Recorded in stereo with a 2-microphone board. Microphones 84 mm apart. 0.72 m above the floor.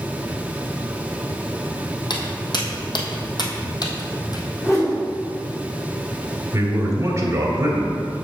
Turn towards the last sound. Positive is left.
turn(degrees=-40)  # may be behind; listen again after turning